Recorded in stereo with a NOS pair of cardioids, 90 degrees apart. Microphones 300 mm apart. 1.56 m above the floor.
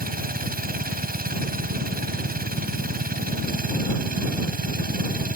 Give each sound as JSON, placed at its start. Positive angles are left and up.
{"t": 0.0, "sound": "a machine running", "azimuth_deg": -30}